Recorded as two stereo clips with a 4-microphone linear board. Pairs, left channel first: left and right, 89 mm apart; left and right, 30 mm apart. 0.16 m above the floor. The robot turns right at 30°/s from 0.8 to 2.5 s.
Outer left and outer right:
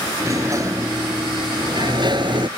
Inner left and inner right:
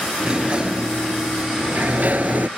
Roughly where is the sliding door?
Behind right.